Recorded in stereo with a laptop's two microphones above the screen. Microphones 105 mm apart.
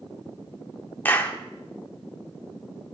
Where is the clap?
15° left (ahead or behind), 1.6 m.